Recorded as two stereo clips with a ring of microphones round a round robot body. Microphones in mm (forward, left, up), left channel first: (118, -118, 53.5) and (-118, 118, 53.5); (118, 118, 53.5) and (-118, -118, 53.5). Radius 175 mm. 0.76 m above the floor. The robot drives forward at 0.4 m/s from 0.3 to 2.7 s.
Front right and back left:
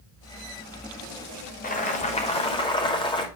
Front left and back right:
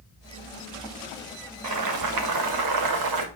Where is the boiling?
105° right, 2.0 m; by 3.3 s 120° right, 2 m.